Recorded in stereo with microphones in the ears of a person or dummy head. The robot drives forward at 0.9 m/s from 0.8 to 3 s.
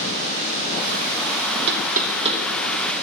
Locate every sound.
1.7 s knocking: 55° right (ahead or behind), 0.6 m; by 2.4 s 25° right (ahead or behind), 1.1 m